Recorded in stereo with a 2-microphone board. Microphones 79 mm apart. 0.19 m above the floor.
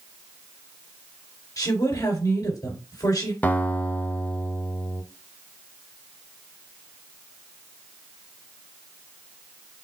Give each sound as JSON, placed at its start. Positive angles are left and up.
{"t": 1.6, "sound": "a woman speaking", "side_deg": 50, "distance_m": 2.5}
{"t": 3.4, "sound": "a guitar", "side_deg": 20, "distance_m": 0.6}